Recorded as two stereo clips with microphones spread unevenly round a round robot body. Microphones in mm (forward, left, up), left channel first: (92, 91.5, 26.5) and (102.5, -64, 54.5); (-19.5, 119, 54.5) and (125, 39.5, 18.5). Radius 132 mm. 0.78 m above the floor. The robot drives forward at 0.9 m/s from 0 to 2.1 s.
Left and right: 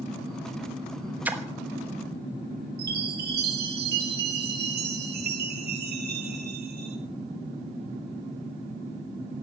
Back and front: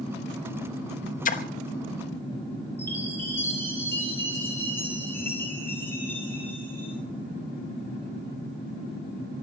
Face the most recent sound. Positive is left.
turn(degrees=-125)